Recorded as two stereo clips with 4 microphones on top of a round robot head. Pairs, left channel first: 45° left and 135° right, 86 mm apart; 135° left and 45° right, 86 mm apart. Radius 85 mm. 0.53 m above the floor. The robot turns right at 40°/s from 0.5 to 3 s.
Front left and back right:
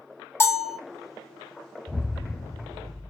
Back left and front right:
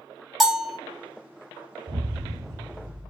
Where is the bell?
45° left, 0.9 m; by 0.8 s 55° left, 0.9 m.